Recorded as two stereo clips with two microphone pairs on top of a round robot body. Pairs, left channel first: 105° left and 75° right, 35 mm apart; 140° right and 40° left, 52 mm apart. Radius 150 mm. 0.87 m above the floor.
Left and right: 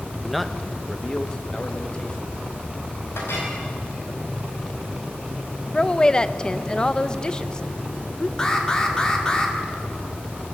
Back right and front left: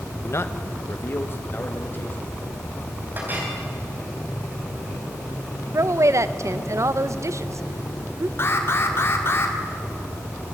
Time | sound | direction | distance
0.2 | a man speaking | 155° right | 1.3 m
3.1 | a clink | 90° left | 4.5 m
5.7 | a woman speaking | 30° left | 0.8 m
8.4 | an alarm | straight behind | 2 m